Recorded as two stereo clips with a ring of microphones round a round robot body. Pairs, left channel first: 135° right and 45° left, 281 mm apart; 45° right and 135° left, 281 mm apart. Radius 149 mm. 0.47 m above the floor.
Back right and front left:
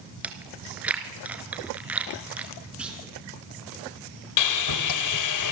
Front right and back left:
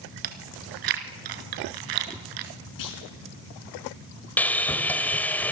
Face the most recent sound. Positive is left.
turn(degrees=-130)